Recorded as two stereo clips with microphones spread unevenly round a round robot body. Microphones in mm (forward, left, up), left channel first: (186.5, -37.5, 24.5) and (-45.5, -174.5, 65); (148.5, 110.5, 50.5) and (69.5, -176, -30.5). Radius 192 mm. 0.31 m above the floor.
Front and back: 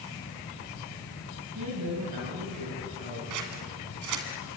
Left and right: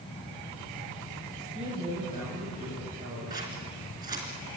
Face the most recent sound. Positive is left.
turn(degrees=180)